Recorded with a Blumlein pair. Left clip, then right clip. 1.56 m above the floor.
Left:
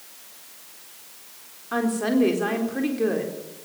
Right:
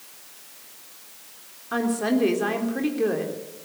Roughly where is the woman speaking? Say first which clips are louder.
Left 1 dB; ahead.